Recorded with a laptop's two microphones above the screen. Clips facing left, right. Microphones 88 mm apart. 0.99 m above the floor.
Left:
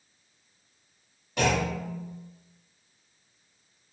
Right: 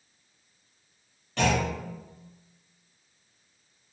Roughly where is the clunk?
Centre.